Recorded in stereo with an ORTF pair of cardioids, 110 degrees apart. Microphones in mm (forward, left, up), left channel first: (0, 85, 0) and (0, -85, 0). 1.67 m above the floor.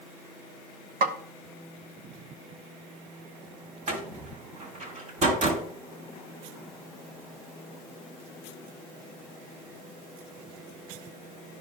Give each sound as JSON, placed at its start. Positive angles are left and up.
{"t": 1.0, "sound": "a snare drum", "azimuth_deg": -50, "distance_m": 1.2}
{"t": 3.9, "sound": "a door slam", "azimuth_deg": -50, "distance_m": 3.0}